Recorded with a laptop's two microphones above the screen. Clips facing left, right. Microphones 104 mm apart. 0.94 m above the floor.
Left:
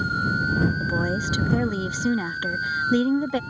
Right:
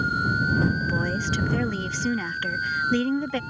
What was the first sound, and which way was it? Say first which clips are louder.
A woman speaking: left 1 dB; 15° left (ahead or behind).